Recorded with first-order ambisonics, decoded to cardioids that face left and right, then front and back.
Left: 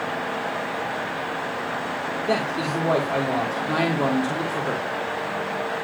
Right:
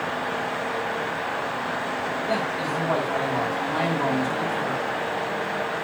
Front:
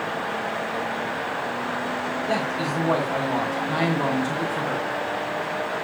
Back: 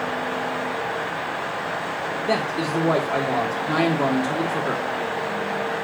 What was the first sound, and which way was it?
A man speaking, 145° left.